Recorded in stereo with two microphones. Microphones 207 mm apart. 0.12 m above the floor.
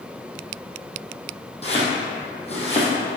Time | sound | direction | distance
1.6 | chopping | 30° left (ahead or behind) | 2.5 m